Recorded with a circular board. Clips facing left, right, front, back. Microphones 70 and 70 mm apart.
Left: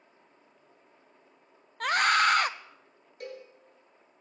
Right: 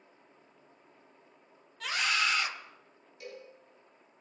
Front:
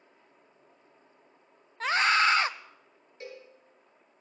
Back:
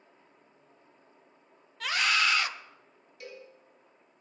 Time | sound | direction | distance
1.8 | a scream | 55° left | 0.8 m
3.2 | a cowbell | 55° left | 4.5 m